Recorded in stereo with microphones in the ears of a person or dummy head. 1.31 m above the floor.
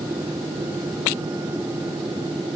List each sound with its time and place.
Only background noise.